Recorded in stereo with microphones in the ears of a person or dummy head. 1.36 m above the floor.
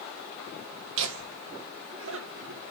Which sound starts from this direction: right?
Laughter, at 1.0 s.